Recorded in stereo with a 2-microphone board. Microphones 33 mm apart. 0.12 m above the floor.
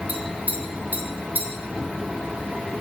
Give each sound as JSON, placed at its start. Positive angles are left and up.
{"t": 0.1, "sound": "tapping", "side_deg": -55, "distance_m": 1.0}